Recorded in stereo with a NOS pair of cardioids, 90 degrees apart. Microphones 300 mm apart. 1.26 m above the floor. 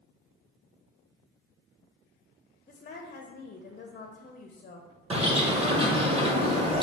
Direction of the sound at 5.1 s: 20° right.